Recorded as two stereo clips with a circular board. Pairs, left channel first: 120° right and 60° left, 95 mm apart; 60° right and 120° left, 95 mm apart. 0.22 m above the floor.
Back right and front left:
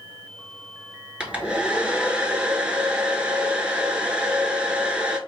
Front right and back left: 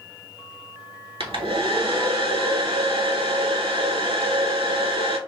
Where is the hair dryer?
135° left, 0.7 m.